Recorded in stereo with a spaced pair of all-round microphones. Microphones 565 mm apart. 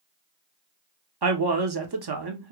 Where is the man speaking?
45° right (ahead or behind), 0.6 m.